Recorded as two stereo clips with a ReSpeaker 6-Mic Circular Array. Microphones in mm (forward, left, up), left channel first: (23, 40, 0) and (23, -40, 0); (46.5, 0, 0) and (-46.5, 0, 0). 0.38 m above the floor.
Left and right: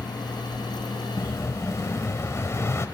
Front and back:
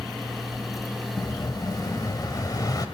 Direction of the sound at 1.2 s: 40° left.